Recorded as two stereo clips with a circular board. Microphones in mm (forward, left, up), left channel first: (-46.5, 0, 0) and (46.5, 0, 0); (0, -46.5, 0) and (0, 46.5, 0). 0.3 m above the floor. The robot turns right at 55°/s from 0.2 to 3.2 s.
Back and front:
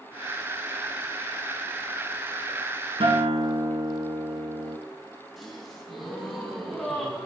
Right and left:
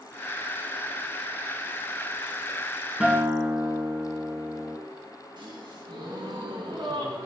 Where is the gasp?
90° left, 2.5 m.